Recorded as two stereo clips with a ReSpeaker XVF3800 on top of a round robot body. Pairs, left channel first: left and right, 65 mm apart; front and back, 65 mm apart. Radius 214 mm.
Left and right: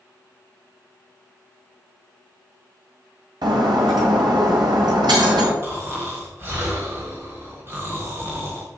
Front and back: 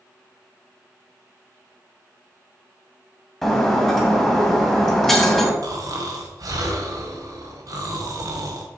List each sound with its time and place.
3.4 s breaking glass: 85° right, 1.7 m
5.6 s snoring: 145° right, 1.7 m